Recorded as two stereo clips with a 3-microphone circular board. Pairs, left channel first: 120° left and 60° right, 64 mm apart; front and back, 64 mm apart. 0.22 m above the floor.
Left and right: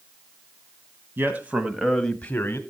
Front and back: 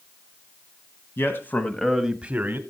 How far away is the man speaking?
About 1.4 m.